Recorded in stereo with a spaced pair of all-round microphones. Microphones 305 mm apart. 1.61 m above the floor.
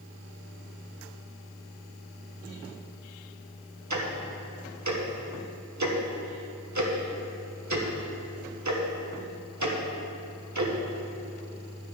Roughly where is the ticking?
Right.